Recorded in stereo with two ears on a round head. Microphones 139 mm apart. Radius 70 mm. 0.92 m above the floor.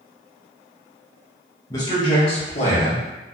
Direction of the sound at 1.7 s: 20° left (ahead or behind).